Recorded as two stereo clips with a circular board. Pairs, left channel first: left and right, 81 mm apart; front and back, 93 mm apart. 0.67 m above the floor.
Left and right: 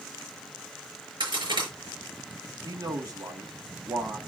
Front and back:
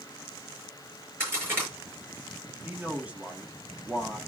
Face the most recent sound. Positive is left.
turn(degrees=-105)